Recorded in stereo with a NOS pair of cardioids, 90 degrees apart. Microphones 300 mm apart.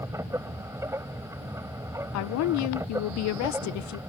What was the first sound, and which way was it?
A machine running, 10° right.